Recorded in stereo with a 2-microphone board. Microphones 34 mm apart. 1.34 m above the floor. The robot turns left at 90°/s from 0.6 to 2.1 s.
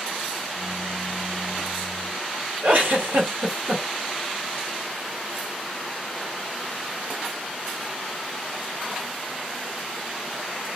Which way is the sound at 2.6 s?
60° right (ahead or behind).